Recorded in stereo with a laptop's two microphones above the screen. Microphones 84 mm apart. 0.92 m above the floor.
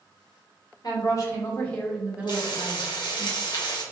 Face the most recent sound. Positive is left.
turn(degrees=55)  # may be behind; listen again after turning